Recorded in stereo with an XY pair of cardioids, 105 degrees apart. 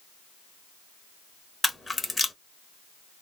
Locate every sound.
1.6 s a camera shutter: 20° left, 0.9 m